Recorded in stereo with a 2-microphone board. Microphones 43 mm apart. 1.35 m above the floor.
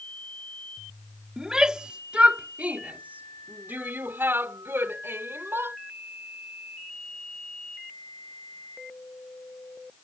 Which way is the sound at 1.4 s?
15° right (ahead or behind).